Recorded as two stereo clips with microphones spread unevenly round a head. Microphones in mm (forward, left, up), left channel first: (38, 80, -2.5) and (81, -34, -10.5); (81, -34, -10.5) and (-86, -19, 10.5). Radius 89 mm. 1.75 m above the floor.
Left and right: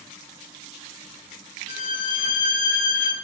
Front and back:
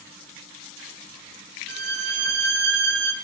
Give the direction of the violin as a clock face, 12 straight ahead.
7 o'clock.